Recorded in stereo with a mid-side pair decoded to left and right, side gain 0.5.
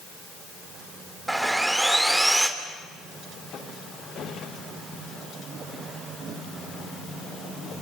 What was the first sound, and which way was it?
Sawing, 10° right.